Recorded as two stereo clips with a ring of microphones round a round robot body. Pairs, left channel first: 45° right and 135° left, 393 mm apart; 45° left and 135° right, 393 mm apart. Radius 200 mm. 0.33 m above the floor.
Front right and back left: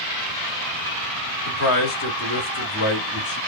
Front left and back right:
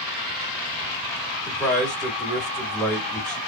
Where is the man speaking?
40° right, 1.6 m.